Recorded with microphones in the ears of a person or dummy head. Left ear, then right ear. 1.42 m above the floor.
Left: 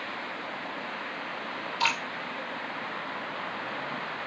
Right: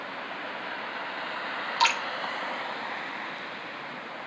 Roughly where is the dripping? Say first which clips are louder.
Right 3 dB; right.